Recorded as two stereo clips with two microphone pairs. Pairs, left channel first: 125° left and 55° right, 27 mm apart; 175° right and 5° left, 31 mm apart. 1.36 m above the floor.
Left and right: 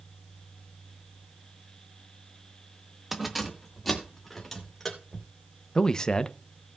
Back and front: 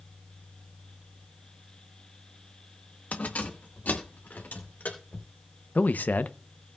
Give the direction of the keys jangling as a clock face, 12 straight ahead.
5 o'clock.